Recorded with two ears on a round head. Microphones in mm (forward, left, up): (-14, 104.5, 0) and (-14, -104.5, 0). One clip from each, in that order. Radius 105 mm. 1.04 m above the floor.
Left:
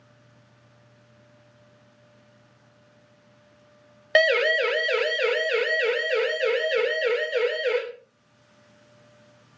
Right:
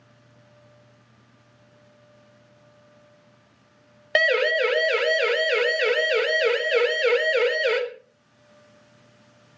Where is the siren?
10° left (ahead or behind), 2 m; by 7.8 s 30° right (ahead or behind), 4 m.